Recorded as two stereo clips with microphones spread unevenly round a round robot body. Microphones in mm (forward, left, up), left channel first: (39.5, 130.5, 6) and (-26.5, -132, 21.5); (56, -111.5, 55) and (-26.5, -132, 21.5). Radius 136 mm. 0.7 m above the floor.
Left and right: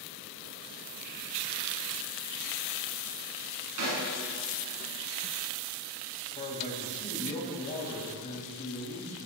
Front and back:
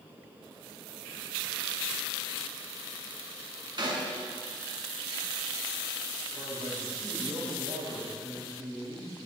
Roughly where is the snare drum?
Behind right.